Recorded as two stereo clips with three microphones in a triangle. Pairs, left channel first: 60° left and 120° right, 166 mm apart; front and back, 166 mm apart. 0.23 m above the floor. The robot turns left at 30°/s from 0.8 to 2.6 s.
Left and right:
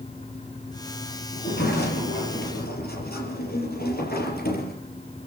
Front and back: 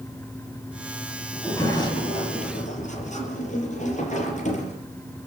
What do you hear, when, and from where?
1.3 s a sliding door: 80° left, 5.5 m; by 4.8 s 40° left, 5.5 m